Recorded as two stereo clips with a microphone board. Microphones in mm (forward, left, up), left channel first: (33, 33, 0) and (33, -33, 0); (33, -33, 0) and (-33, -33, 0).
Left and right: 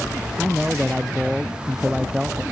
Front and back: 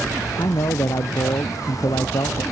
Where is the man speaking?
5° right.